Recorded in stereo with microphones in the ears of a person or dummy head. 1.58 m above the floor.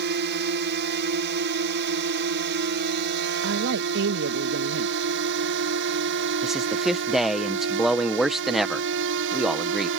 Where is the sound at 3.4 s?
60° right (ahead or behind).